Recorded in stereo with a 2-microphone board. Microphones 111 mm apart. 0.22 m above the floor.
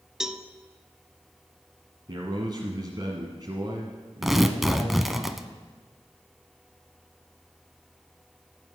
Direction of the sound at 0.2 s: 5° right (ahead or behind).